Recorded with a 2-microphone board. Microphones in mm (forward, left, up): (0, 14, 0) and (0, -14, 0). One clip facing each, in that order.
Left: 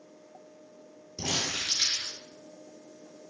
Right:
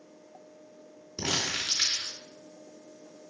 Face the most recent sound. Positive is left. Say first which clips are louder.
# right 1 dB
turn(degrees=-35)  # may be behind; listen again after turning